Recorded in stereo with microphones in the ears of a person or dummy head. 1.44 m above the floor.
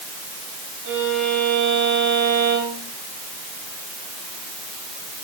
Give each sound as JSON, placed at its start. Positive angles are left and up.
{"t": 0.8, "sound": "a violin", "side_deg": -65, "distance_m": 9.0}